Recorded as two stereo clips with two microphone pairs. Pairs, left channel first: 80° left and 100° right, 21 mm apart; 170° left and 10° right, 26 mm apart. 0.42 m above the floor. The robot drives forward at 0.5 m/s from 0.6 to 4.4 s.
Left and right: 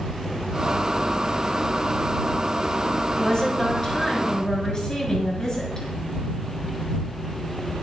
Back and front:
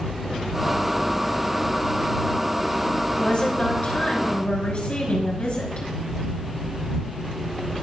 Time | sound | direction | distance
3.2 | a woman speaking | 135° left | 5 m